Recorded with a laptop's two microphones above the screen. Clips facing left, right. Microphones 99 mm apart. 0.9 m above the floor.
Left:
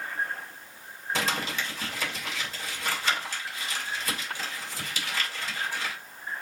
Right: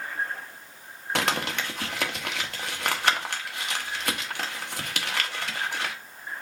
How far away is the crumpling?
About 1.0 m.